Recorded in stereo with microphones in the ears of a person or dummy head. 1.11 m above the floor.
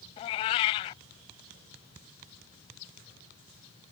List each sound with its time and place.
0.2 s a cat meowing: 25° left (ahead or behind)